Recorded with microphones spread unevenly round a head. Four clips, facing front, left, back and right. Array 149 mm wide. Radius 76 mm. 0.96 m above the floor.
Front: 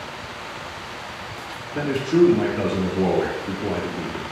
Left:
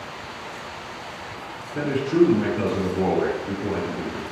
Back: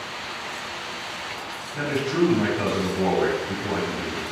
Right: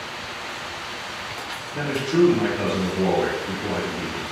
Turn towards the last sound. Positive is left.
turn(degrees=5)